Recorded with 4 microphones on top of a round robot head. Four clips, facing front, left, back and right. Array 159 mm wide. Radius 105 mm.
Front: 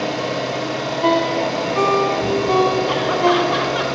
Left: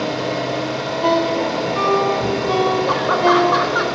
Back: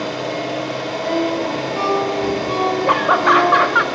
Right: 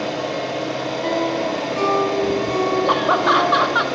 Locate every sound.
0.0 s an engine running: 50° left, 2.5 m
1.0 s a ringtone: 25° left, 1.2 m
2.9 s laughter: 155° right, 0.6 m